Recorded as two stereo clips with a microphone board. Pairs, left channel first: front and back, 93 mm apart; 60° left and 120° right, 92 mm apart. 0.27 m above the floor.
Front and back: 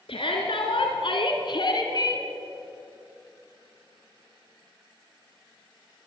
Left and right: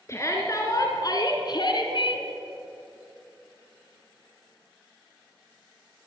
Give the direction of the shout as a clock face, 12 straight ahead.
12 o'clock.